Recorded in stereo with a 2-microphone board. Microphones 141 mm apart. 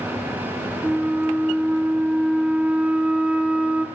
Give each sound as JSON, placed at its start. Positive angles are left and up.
{"t": 0.8, "sound": "a flute", "side_deg": -10, "distance_m": 0.5}